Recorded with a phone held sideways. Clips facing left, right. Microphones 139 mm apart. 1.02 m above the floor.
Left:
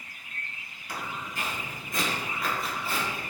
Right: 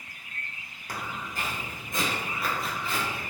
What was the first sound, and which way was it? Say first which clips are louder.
Footsteps: even; 45° right (ahead or behind).